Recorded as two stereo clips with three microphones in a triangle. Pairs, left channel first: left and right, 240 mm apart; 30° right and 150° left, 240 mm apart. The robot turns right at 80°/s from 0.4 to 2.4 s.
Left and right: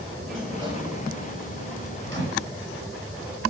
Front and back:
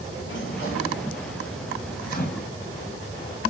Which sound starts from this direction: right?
A microwave, at 2.1 s.